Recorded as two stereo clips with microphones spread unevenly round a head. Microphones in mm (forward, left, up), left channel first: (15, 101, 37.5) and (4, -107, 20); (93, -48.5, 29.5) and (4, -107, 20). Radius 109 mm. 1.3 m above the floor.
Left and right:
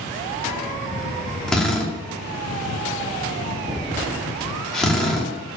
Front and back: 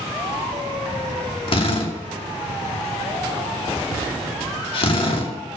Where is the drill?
Straight ahead, 2.5 m.